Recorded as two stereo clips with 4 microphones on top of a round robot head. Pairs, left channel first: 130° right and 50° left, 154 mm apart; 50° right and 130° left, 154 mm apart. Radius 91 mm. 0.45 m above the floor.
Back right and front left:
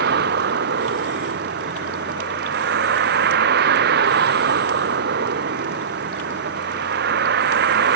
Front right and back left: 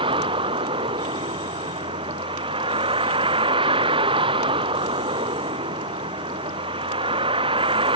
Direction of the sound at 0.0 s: 70° left.